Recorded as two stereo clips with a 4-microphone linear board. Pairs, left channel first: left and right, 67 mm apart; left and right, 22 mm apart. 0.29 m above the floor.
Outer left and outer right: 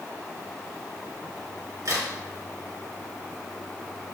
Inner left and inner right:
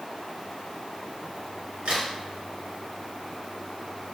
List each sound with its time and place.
1.9 s a crack: 60° right (ahead or behind), 3.5 m